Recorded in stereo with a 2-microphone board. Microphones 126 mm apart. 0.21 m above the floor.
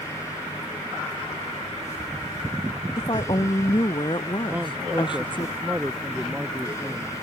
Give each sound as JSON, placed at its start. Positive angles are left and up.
{"t": 3.0, "sound": "a woman speaking", "side_deg": 40}
{"t": 4.5, "sound": "a man speaking", "side_deg": -10}